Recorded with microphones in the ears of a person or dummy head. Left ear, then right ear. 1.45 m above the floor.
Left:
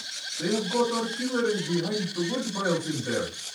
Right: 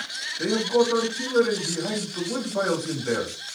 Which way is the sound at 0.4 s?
55° right (ahead or behind).